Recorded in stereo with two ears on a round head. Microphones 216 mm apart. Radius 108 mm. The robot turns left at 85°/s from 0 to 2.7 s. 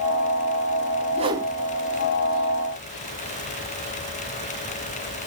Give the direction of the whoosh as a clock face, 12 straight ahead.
5 o'clock.